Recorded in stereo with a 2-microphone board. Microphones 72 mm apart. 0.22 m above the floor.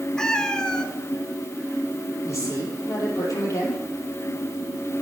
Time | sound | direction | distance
0.2 | a cat meowing | 10° left (ahead or behind) | 1.0 m
2.2 | a woman speaking | 45° left (ahead or behind) | 5 m